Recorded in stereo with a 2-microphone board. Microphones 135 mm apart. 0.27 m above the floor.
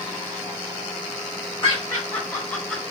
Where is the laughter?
20° left (ahead or behind), 1.4 m; by 2.8 s 5° left (ahead or behind), 1.3 m.